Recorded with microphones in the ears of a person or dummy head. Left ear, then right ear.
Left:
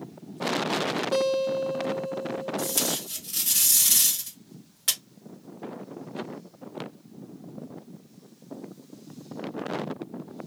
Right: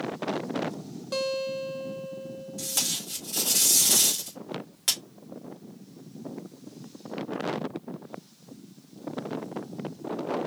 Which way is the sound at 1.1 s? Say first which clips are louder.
Left 3 dB; centre (ahead or behind).